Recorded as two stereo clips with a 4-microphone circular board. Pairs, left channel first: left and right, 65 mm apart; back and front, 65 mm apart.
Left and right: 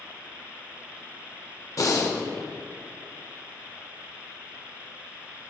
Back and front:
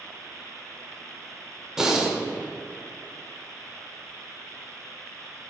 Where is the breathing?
80° left, 1.0 m.